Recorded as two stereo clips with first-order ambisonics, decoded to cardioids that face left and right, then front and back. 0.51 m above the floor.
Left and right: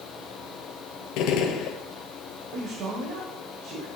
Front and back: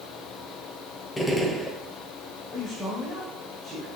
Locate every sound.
1.2 s a gunshot: 75° left, 0.9 m
2.5 s a man speaking: 70° right, 1.6 m